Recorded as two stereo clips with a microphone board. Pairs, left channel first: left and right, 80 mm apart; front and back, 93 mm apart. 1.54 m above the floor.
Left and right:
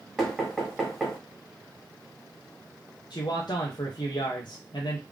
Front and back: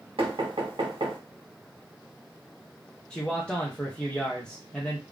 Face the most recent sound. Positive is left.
turn(degrees=80)